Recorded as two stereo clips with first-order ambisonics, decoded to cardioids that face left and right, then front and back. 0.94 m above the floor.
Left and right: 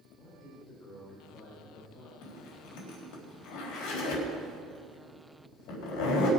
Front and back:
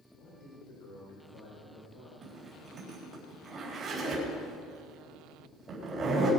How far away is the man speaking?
About 4 m.